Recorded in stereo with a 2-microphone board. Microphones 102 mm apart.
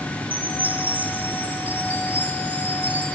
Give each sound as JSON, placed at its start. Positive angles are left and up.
{"t": 0.3, "sound": "a chime", "side_deg": -15, "distance_m": 9.5}